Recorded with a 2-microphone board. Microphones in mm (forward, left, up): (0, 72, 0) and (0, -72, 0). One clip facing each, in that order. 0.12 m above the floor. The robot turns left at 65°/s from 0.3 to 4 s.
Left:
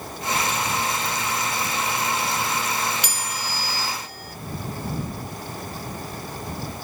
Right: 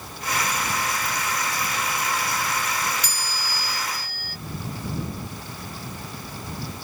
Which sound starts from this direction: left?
A chime, at 3.0 s.